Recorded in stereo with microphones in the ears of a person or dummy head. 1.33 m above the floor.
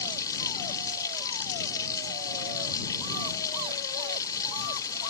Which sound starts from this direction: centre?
Running water, at 0.0 s.